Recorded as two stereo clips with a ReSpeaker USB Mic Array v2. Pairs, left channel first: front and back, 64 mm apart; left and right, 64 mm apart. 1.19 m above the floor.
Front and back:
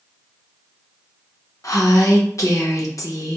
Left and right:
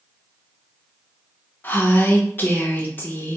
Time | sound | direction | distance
1.6 | a woman speaking | 30° left | 0.7 m